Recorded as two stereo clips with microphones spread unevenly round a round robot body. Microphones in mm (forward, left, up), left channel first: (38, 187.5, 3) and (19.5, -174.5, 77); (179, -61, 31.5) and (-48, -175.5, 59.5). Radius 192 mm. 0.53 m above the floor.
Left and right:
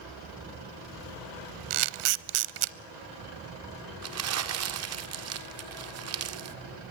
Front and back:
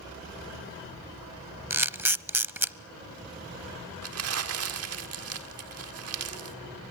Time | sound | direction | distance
1.7 | a camera shutter | 70° right | 0.8 m
4.0 | crumpling | 145° right | 1.8 m